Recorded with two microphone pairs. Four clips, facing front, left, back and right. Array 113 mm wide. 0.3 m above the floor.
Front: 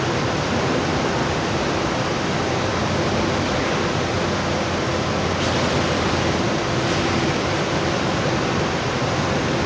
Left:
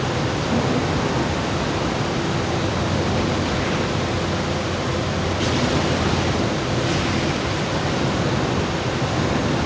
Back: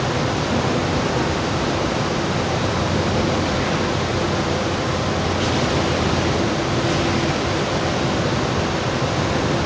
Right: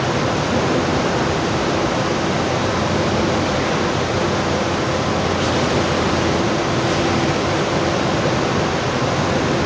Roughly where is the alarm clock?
I don't hear an alarm clock.